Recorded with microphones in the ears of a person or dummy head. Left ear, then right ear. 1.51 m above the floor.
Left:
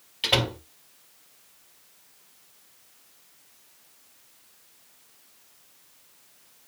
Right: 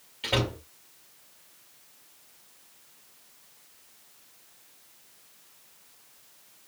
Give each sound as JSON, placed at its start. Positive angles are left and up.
{"t": 0.2, "sound": "a door slam", "side_deg": 30, "distance_m": 2.0}